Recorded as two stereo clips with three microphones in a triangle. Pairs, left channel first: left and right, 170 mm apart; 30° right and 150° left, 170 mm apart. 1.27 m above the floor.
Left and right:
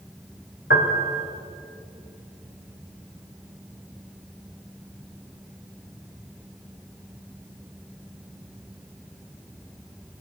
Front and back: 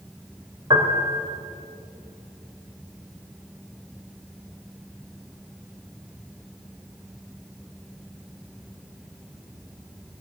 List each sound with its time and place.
0.7 s a piano: 85° left, 3.5 m